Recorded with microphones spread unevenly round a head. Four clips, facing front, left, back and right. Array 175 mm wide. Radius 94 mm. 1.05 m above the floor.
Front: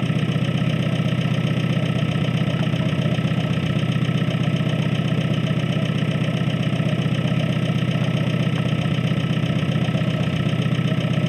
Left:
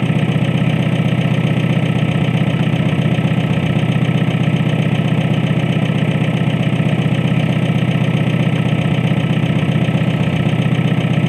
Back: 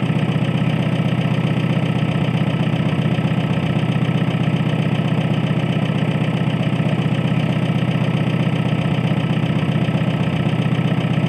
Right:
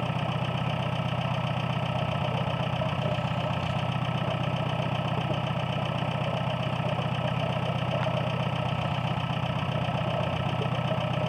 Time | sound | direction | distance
0.0 | an engine running | 140° left | ?